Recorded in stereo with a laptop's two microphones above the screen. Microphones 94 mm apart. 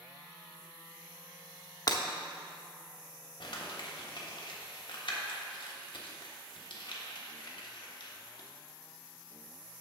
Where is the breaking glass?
45° left (ahead or behind), 0.7 m.